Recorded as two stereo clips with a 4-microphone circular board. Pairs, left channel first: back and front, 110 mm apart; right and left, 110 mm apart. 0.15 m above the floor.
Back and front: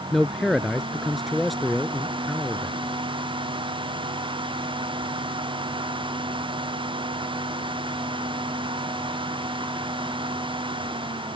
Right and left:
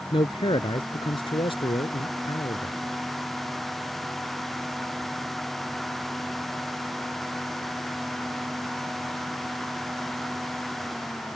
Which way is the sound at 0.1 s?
90° right.